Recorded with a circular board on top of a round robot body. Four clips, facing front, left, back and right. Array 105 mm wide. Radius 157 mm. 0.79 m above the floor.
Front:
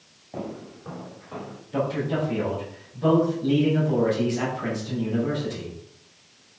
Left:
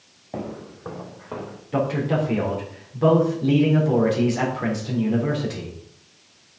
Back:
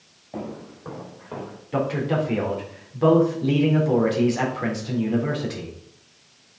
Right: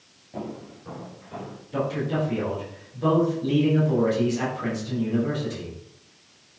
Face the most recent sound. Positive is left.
turn(degrees=145)